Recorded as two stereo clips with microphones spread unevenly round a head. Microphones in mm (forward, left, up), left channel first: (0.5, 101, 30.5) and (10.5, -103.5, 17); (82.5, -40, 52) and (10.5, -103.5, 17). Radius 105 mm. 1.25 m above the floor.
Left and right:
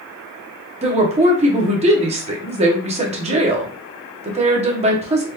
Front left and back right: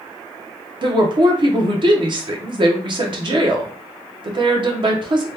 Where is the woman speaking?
145° right, 0.9 m.